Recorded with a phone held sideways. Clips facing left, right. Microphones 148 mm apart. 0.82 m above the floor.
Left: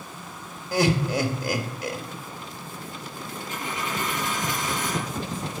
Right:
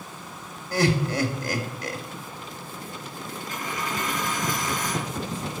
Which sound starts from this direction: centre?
Laughter, at 0.7 s.